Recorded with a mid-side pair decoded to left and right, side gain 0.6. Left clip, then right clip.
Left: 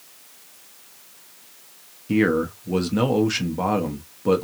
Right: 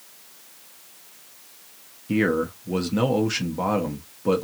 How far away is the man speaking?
About 0.8 m.